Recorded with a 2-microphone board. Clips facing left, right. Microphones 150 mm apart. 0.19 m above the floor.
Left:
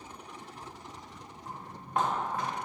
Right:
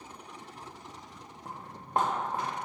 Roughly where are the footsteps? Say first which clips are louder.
Even; right.